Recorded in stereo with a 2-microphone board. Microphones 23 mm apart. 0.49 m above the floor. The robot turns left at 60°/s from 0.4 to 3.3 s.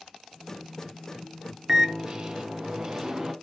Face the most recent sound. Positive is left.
turn(degrees=-145)